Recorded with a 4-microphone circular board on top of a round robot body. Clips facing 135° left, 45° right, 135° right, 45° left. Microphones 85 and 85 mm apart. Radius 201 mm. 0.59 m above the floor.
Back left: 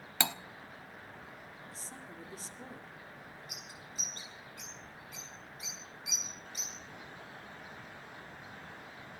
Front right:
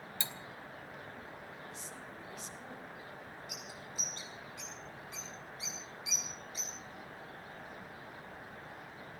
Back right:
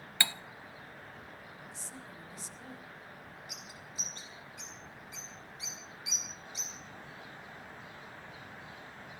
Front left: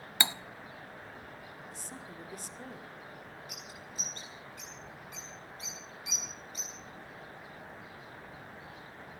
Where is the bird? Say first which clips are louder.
Front right 2 dB, front left 2 dB; 90° left, 6 m.